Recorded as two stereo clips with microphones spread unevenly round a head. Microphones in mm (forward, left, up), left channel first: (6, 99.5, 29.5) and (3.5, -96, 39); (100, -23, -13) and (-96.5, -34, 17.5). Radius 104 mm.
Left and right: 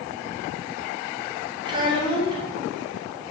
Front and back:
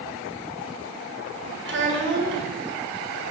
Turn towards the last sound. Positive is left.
turn(degrees=-155)